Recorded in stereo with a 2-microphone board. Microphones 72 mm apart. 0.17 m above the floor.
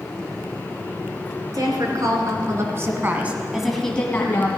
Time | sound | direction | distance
1.5 | a woman speaking | 60° right (ahead or behind) | 3 m